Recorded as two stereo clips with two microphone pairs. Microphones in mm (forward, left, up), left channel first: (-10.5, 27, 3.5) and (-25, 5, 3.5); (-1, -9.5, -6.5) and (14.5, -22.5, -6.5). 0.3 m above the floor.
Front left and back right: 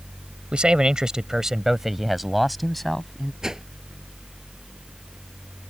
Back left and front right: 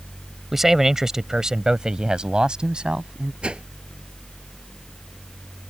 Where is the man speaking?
105° right; by 3.3 s 25° right.